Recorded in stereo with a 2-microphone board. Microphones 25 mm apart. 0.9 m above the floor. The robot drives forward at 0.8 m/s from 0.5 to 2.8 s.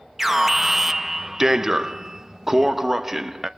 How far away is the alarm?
About 1.2 m.